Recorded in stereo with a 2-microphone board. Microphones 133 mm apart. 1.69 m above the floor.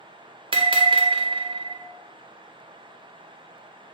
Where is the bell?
40° right (ahead or behind), 0.7 m.